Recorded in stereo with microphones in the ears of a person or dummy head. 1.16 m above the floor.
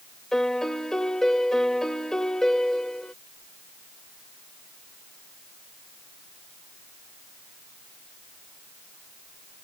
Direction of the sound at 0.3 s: Centre (ahead or behind).